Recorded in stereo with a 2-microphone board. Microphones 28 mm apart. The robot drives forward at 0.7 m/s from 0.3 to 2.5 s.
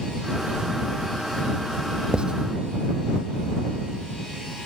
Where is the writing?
35° right (ahead or behind).